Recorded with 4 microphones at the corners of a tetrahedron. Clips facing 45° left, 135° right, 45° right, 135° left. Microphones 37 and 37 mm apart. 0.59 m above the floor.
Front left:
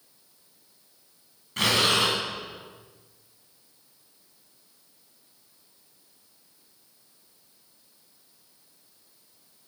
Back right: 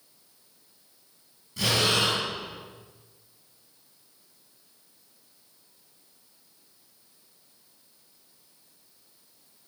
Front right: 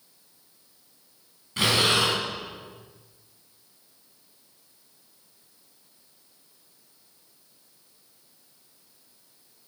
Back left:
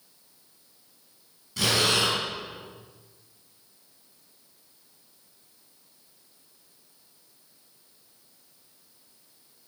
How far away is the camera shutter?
I don't hear a camera shutter.